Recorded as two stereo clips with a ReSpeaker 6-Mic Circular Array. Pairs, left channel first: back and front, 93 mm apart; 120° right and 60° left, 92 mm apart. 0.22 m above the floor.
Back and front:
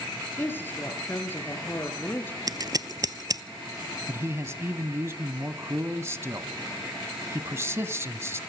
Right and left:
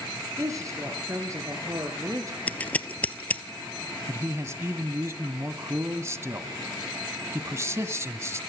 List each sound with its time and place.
0.4 s a woman speaking: 115° left, 4 m
2.5 s scissors: 45° right, 0.7 m
4.1 s a man speaking: 35° left, 1.1 m